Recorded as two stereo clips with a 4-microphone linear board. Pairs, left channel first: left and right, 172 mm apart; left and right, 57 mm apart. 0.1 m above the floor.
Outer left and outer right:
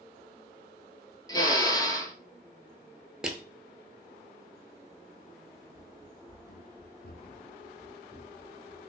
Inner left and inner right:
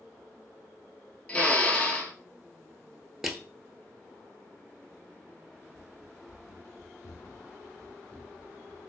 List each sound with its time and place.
1.3 s a drill: 25° left (ahead or behind), 0.9 m
3.2 s crushing: 5° right (ahead or behind), 0.7 m
5.7 s running footsteps: 70° left (ahead or behind), 0.9 m; by 8.9 s 25° left (ahead or behind), 1.4 m